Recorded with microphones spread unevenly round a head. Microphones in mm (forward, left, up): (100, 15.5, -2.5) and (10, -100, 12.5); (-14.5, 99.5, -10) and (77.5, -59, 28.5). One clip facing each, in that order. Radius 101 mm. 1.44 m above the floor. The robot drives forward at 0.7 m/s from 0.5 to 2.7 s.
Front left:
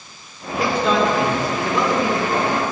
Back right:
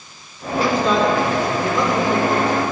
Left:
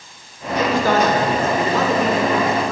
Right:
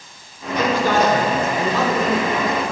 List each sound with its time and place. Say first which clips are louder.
0.5 s a man speaking: back right 1 dB, left 1 dB; 110° left, 5.5 m; by 2.7 s 120° left, 6 m